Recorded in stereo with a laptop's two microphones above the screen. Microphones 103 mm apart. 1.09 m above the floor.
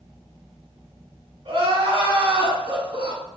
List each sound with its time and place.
1.4 s crying: 55° right (ahead or behind), 1.2 m